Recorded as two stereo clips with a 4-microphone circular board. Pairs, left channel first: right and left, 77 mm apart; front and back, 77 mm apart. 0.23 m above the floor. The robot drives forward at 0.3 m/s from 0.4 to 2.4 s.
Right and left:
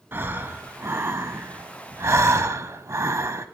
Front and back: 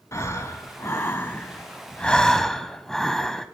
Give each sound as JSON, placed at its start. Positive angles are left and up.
{"t": 0.1, "sound": "breathing", "azimuth_deg": 40, "distance_m": 1.0}